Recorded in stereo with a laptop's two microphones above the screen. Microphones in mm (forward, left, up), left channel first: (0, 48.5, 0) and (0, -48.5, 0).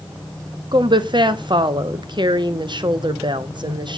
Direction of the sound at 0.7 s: 45° right (ahead or behind).